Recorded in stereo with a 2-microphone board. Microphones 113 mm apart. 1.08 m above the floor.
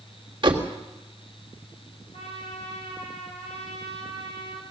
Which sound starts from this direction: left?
A trumpet, at 2.1 s.